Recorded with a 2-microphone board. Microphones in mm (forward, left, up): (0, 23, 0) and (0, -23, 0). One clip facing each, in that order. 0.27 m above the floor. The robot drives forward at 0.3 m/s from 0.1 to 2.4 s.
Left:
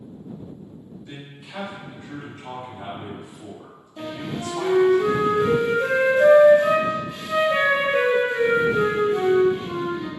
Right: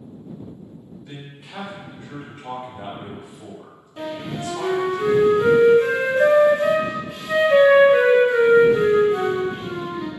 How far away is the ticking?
No ticking in this recording.